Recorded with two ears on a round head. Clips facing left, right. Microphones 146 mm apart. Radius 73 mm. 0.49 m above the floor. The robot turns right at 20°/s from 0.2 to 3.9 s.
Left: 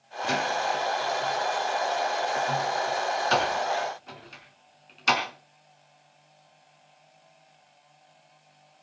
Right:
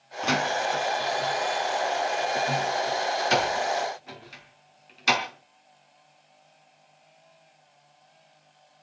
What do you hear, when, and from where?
0.2 s a door slam: 80° right, 4 m; by 5.2 s 10° right (ahead or behind), 4 m